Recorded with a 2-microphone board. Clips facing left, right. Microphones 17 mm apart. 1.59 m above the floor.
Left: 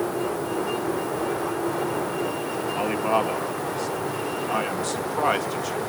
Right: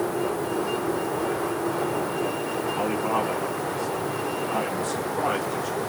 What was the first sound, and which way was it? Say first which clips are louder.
A man speaking: left 3 dB; 35° left (ahead or behind).